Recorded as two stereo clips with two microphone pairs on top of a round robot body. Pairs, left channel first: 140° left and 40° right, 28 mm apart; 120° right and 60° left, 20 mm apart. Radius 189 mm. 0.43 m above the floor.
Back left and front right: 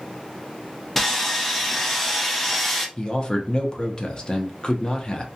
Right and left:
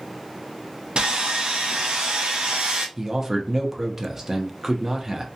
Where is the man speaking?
125° left, 0.9 m.